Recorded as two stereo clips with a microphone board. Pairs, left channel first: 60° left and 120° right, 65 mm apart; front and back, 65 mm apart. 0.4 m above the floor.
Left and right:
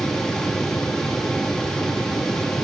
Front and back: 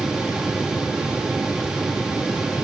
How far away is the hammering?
No hammering in this recording.